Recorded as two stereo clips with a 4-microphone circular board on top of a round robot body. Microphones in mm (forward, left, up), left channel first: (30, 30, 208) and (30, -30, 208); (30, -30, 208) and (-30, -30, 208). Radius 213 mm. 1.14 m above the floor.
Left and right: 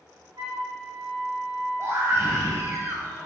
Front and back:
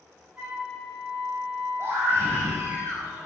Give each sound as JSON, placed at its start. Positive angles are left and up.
{"t": 0.4, "sound": "a flute", "azimuth_deg": -110, "distance_m": 2.5}
{"t": 1.8, "sound": "a scream", "azimuth_deg": -135, "distance_m": 3.5}